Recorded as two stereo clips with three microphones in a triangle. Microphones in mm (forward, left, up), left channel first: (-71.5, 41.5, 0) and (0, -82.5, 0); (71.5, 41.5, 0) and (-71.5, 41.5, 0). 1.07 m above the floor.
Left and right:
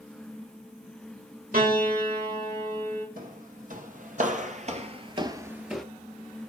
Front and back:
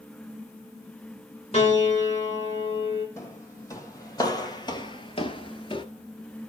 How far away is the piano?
About 5 m.